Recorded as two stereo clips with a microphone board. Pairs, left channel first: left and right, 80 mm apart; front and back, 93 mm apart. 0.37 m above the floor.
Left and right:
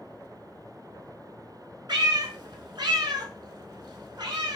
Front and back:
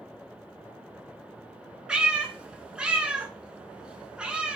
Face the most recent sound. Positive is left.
turn(degrees=-100)